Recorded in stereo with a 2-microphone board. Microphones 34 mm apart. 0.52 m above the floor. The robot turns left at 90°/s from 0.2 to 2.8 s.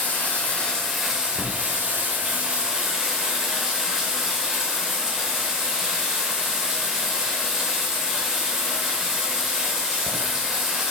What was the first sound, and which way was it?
Running water, 70° left.